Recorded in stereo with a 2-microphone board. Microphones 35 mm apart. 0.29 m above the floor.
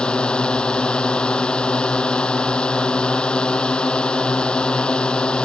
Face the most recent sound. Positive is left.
turn(degrees=30)  # may be behind; listen again after turning